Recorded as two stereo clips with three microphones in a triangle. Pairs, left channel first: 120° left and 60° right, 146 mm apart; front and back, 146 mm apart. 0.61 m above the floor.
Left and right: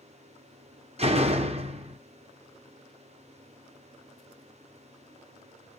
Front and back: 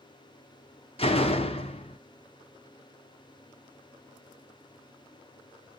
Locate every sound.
1.0 s a door slam: 35° right, 0.6 m